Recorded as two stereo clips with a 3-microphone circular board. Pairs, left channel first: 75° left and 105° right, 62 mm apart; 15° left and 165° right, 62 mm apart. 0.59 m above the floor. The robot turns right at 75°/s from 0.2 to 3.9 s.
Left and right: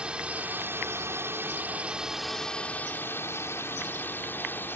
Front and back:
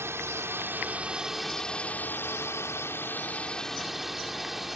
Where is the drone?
170° right; by 4.8 s 110° left.